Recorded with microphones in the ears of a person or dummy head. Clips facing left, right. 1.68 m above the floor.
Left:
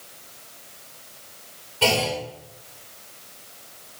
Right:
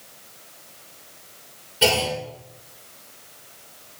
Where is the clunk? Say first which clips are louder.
Right 1 dB; 15° right (ahead or behind), 2.5 m.